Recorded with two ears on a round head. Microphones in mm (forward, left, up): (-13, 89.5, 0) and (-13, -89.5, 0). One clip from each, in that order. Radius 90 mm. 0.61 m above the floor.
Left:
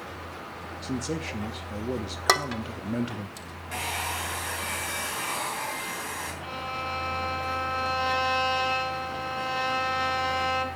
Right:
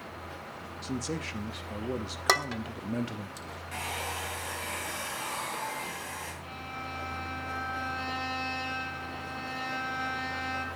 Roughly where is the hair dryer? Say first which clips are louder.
Left 5 dB; centre.